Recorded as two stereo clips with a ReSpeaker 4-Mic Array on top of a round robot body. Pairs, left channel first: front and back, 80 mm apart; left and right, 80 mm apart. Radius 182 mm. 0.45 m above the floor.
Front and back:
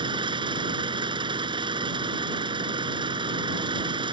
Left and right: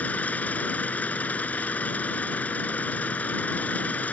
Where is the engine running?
160° left.